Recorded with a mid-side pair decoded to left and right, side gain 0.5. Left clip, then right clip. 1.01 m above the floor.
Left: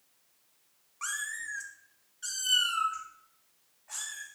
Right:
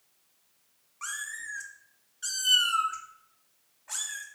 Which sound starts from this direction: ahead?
A cat meowing, at 1.0 s.